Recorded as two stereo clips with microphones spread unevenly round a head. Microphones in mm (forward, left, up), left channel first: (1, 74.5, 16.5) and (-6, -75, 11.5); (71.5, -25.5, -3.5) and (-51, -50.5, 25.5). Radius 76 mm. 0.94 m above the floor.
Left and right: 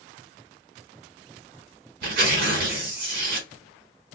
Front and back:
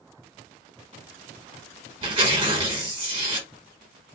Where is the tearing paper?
120° right, 1.3 m.